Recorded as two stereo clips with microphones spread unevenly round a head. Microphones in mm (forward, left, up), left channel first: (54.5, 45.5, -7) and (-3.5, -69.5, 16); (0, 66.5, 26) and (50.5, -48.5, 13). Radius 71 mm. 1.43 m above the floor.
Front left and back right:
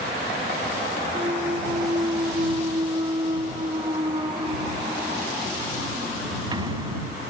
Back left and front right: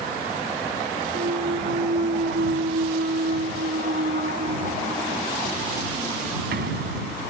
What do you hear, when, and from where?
1.1 s a clunk: 65° right